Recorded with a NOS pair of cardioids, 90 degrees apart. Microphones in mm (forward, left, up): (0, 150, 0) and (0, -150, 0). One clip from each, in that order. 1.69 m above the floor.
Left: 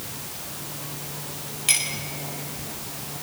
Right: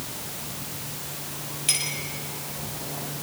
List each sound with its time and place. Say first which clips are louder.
1.7 s a clink: left 3 dB; 25° left, 6 m